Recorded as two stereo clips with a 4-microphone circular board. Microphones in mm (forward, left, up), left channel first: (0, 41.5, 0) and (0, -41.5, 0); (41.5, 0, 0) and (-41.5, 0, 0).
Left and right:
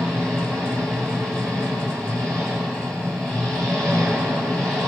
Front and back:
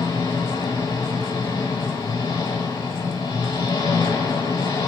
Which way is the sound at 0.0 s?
35° right.